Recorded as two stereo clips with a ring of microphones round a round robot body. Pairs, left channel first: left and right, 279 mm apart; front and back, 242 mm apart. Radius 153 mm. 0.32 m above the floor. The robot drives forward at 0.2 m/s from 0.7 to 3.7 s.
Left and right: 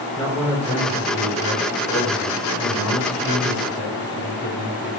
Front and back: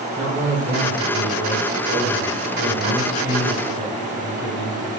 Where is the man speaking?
175° right, 1.8 m.